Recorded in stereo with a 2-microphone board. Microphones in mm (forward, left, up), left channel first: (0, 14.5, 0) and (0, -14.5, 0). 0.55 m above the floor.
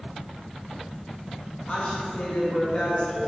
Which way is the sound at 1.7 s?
40° left (ahead or behind).